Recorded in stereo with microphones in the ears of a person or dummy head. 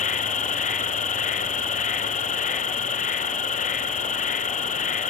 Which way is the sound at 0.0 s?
35° left (ahead or behind).